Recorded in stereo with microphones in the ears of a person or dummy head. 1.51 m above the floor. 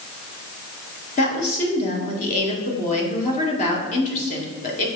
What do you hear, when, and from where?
1.2 s a woman speaking: 40° left (ahead or behind), 1.9 m